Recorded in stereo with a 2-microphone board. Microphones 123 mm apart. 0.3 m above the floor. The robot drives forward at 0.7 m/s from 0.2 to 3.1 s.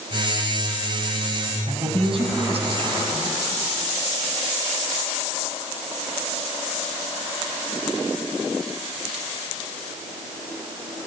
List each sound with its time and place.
1.7 s a man speaking: 45° right (ahead or behind), 2.5 m; by 3.3 s 55° right (ahead or behind), 2.5 m